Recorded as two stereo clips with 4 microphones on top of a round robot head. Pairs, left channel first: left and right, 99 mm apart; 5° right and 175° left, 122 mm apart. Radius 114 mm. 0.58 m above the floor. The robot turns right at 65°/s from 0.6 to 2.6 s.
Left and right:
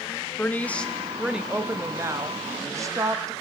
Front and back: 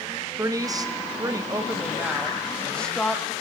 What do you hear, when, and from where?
0.4 s a woman speaking: 150° left, 0.7 m; by 3.3 s 80° right, 0.7 m